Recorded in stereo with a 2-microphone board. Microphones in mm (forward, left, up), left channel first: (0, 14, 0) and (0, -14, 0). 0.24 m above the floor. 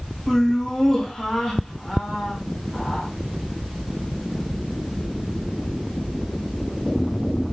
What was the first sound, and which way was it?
Laughter, 15° left (ahead or behind).